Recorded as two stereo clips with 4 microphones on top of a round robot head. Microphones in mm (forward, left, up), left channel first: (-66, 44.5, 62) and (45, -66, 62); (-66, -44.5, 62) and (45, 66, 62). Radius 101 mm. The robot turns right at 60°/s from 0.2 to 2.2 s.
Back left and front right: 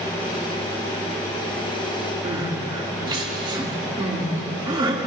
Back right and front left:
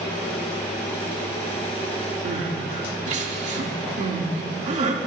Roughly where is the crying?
Ahead.